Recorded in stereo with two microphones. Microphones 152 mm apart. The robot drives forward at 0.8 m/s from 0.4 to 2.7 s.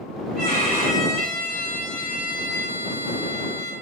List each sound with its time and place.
0.3 s a violin: 80° right, 2.5 m; by 3.7 s 60° right (ahead or behind), 3 m